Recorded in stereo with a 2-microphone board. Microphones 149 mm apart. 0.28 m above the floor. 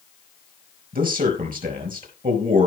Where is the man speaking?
65° right (ahead or behind), 5 m.